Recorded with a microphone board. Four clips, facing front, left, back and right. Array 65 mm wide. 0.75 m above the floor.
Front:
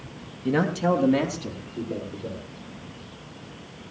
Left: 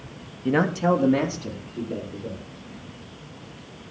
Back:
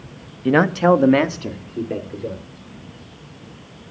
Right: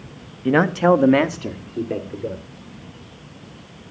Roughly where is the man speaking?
Behind right.